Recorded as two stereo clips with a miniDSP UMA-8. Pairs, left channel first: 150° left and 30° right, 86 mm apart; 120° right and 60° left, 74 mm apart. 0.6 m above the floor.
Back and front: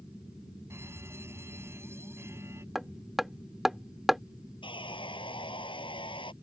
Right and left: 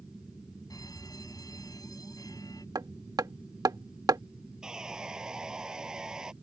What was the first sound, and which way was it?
A fire alarm, 90° right.